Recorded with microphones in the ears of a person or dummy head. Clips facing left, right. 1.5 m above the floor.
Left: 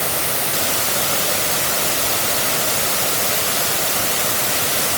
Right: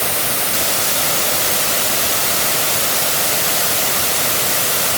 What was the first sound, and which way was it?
Only background noise.